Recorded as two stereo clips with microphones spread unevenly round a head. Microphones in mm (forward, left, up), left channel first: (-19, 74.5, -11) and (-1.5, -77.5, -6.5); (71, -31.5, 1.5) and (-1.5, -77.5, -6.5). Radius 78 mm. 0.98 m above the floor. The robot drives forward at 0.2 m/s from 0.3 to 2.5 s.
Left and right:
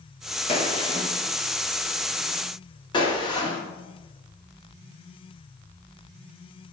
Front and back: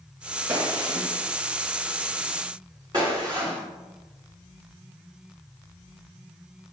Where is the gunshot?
145° left, 1.1 m; by 3.6 s 155° left, 1.4 m.